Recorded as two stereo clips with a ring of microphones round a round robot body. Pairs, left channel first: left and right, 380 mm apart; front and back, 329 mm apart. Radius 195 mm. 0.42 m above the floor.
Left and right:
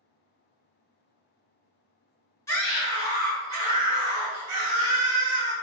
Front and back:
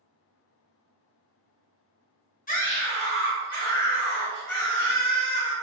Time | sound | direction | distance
2.5 | a scream | 20° left | 0.8 m